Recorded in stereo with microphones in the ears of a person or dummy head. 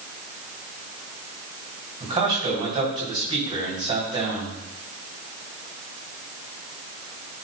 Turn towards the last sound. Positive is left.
turn(degrees=-30)  # may be behind; listen again after turning